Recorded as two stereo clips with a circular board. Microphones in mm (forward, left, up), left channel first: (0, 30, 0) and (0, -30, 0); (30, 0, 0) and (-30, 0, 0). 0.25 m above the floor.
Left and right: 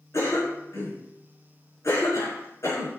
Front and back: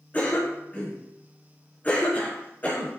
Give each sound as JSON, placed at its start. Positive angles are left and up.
{"t": 0.1, "sound": "a cough", "azimuth_deg": 60, "distance_m": 4.5}